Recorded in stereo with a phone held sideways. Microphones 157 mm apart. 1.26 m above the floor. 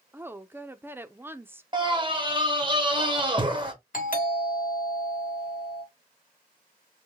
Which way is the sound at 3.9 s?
60° left (ahead or behind).